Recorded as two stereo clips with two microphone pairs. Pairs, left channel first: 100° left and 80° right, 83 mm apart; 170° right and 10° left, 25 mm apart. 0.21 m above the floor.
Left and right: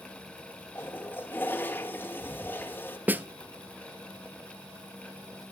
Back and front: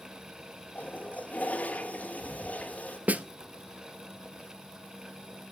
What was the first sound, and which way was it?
A toilet flushing, 165° left.